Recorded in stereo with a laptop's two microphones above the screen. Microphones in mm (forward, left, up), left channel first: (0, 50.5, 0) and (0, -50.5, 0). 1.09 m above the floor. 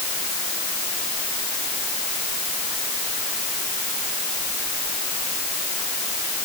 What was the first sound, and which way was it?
Only background noise.